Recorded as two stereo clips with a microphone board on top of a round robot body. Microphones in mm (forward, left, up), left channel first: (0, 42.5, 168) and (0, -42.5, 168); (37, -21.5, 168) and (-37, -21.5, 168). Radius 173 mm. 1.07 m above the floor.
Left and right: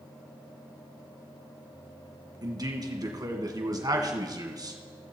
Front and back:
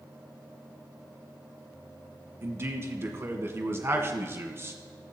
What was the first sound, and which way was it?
A man speaking, 125° right.